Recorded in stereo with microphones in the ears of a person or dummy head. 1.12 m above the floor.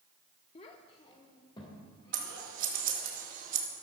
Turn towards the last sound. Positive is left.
turn(degrees=-50)  # may be behind; listen again after turning